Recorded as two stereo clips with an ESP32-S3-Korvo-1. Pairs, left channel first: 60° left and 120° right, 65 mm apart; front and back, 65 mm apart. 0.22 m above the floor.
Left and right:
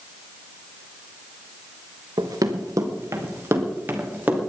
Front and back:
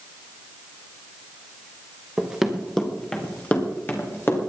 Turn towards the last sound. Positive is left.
turn(degrees=-50)